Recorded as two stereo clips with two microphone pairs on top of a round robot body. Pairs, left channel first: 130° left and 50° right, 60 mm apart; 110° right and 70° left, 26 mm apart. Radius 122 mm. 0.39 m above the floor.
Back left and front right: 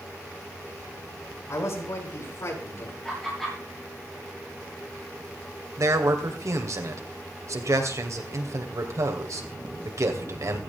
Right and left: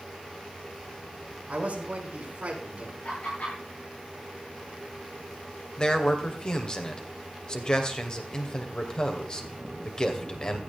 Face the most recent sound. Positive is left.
turn(degrees=-50)